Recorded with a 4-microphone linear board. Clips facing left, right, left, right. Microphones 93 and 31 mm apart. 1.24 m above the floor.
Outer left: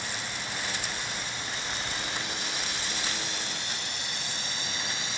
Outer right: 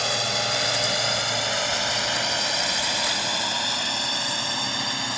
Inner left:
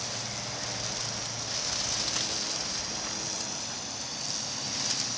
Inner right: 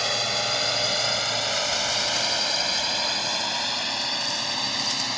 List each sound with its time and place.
0.0 s a drone: 85° right; by 5.2 s 60° right (ahead or behind)